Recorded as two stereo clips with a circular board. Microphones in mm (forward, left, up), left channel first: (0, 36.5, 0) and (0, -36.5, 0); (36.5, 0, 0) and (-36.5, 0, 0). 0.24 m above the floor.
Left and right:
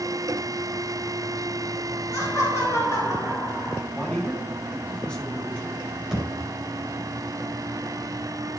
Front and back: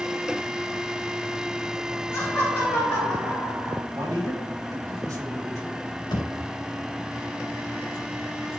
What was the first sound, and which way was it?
Laughter, 50° left.